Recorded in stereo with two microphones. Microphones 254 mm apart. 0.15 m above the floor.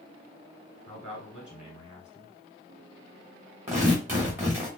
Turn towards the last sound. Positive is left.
turn(degrees=-10)  # may be behind; listen again after turning